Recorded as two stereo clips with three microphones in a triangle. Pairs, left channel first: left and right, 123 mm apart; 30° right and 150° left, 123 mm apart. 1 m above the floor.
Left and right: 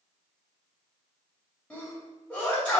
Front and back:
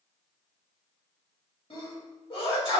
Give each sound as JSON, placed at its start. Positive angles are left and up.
{"t": 1.7, "sound": "a sneeze", "azimuth_deg": 10, "distance_m": 2.0}